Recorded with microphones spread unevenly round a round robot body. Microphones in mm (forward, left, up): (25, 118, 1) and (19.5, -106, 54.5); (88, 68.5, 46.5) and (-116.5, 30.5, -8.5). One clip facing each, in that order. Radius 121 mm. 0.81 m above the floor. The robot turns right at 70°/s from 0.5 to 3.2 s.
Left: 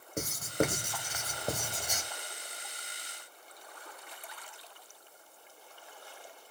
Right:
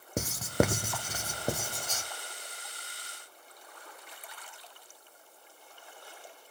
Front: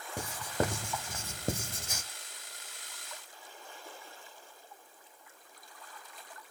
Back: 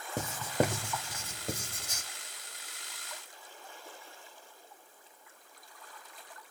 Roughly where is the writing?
Right.